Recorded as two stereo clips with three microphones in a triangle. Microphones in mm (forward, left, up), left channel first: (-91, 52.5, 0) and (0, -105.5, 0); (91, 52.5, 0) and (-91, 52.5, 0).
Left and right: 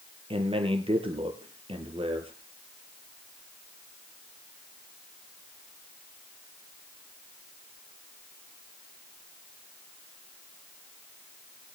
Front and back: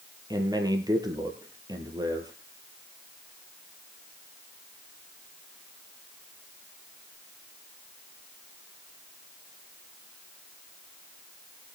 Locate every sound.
0.3 s a man speaking: 115° right, 3.5 m